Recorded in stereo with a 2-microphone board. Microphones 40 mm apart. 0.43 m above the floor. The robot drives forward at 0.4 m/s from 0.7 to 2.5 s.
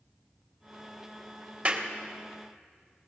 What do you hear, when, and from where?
1.6 s a clap: 30° right (ahead or behind), 1.4 m